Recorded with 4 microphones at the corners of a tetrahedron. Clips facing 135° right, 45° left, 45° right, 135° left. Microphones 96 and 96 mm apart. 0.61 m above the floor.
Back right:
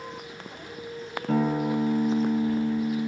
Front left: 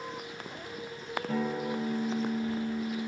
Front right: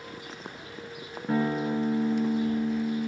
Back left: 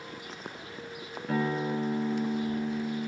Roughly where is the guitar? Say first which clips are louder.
Back right 8 dB, front right 3 dB; behind right.